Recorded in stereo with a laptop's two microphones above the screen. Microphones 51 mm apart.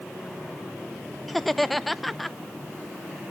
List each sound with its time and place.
1.3 s laughter: centre (ahead or behind), 0.6 m